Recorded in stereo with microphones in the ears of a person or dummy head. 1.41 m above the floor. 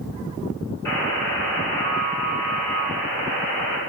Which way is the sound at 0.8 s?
10° left (ahead or behind).